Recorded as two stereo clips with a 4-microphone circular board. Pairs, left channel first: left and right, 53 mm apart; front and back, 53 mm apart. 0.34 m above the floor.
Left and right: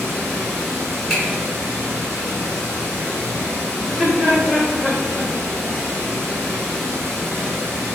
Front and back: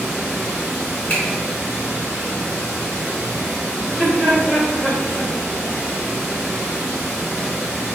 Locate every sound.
0.0 s running water: 115° right, 1.9 m
1.1 s a finger snap: 25° right, 1.3 m
3.8 s laughter: 120° right, 1.4 m